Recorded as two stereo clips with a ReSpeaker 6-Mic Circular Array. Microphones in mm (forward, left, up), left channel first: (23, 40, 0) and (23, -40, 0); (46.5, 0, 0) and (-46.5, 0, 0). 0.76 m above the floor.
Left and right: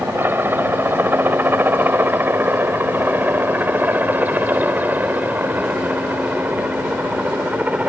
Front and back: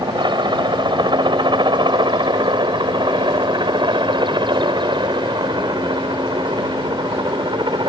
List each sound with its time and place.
0.0 s a helicopter: 150° right; by 7.9 s 160° right